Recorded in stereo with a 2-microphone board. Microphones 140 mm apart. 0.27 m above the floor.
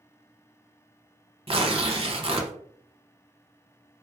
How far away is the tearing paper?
About 0.6 m.